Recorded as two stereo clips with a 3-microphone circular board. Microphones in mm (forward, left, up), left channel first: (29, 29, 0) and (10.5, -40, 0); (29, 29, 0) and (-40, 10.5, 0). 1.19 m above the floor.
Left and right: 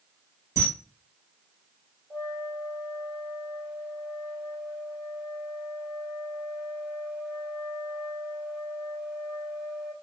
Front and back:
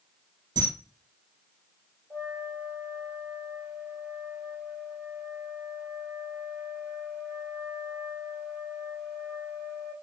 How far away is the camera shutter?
About 2.5 m.